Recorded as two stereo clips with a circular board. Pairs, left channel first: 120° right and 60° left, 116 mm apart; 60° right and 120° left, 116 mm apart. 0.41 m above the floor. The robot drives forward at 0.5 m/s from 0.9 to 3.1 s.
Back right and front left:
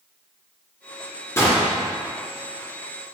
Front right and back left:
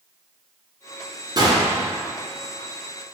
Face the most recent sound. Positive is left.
turn(degrees=175)